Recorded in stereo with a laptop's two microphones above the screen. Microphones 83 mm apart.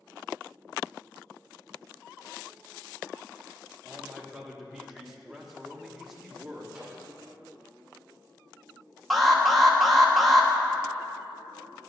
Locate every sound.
3.8 s a man speaking: 5° right (ahead or behind), 1.0 m
6.7 s a microwave: 5° right (ahead or behind), 3.5 m
9.1 s an alarm: centre (ahead or behind), 1.3 m